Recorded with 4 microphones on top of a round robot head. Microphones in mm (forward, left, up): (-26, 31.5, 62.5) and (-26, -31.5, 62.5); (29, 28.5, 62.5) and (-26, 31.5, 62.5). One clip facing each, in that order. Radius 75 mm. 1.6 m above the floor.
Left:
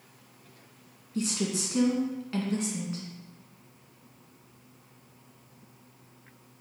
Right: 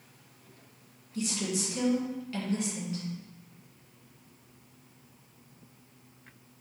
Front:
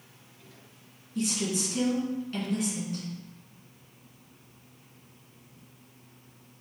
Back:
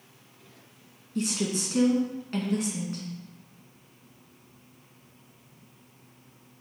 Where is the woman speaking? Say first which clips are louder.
Left 2 dB, back 1 dB; 140° left, 1.8 m.